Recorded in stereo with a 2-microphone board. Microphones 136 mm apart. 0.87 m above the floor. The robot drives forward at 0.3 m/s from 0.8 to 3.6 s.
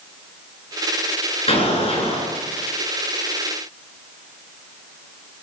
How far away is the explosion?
About 6 m.